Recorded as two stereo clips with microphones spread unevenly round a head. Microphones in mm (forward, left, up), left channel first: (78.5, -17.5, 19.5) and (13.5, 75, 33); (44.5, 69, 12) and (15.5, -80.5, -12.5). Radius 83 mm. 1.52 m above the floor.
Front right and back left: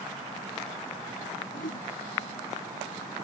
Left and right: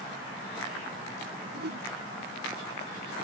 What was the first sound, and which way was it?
A whoosh, 80° right.